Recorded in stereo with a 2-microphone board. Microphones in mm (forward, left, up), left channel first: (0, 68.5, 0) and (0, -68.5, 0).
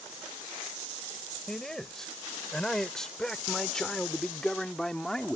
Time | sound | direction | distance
1.5 | a man speaking | 5° left (ahead or behind) | ?